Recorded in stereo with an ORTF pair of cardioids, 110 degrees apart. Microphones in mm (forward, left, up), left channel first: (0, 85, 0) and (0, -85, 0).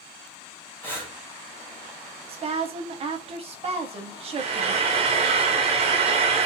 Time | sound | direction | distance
0.8 | breathing | 10° left | 1.1 m
2.3 | a woman speaking | 35° right | 0.7 m
4.4 | frying | 40° right | 0.5 m